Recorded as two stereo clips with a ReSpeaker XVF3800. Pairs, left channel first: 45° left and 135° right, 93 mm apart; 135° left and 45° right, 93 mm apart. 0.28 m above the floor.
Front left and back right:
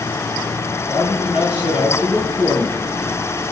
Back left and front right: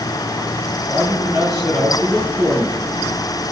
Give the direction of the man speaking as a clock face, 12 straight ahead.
11 o'clock.